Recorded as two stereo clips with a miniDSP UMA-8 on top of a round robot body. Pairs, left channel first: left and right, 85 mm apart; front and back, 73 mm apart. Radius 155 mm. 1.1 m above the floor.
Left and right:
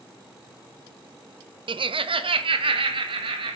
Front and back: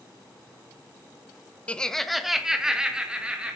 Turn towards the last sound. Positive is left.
turn(degrees=-105)